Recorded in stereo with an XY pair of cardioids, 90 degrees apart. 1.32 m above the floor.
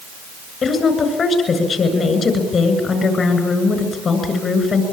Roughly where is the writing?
No writing in this recording.